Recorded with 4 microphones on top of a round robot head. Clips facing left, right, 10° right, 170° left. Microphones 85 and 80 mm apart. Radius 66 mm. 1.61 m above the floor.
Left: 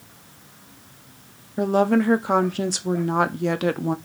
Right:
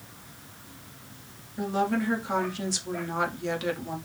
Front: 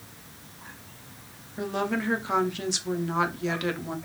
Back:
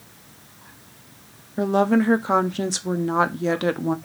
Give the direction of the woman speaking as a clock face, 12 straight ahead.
8 o'clock.